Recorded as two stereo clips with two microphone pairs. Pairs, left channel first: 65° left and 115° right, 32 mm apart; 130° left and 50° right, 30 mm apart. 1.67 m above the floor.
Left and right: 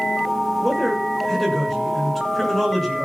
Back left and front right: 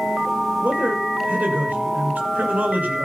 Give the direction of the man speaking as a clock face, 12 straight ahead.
1 o'clock.